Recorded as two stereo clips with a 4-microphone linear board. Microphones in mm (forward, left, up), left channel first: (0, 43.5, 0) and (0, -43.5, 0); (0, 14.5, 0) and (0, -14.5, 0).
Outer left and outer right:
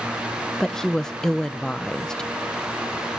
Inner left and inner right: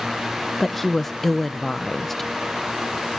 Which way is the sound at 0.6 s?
5° left (ahead or behind).